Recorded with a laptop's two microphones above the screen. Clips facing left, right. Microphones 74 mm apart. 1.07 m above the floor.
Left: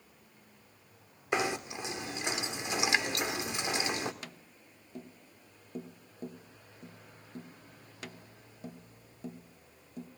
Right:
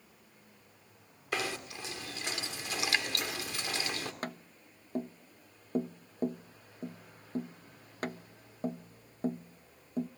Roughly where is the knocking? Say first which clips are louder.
Left 4 dB; left.